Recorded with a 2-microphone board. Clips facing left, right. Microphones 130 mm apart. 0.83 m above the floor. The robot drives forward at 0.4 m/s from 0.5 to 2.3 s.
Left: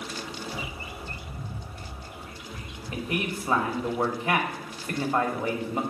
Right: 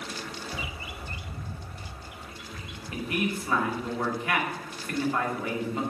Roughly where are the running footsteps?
No running footsteps in this recording.